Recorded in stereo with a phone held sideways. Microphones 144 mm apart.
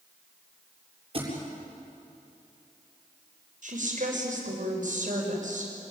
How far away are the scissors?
I don't hear scissors.